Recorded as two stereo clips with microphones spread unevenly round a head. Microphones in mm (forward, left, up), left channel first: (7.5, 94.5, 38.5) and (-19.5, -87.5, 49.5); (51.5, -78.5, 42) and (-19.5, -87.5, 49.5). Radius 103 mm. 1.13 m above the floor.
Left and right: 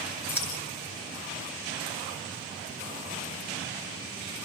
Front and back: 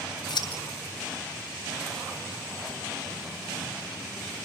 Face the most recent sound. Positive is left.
turn(degrees=0)